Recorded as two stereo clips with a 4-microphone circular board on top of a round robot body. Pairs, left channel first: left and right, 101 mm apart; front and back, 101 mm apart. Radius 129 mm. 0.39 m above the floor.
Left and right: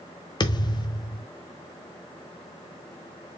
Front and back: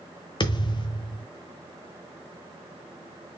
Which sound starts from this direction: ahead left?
A thud, at 0.4 s.